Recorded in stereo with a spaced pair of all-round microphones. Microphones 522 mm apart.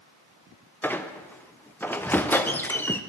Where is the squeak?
5° left (ahead or behind), 0.6 m.